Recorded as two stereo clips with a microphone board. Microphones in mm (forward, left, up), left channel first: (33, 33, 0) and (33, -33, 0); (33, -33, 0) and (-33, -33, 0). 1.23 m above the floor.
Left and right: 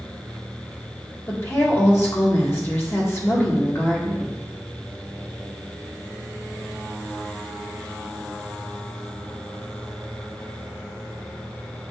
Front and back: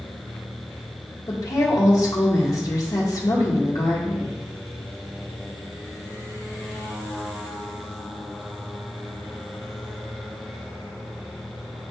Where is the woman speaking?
35° left, 1.6 m.